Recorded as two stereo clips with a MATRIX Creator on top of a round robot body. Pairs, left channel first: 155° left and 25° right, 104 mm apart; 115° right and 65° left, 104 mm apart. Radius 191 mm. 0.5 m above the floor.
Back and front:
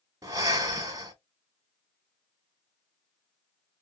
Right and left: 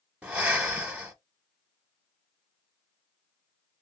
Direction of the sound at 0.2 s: 5° right.